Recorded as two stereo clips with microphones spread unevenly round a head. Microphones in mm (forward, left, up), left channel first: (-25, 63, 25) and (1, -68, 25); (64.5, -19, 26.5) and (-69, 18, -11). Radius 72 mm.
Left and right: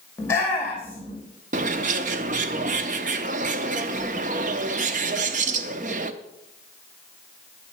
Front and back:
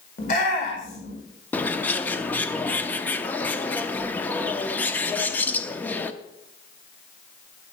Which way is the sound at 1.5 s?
75° right.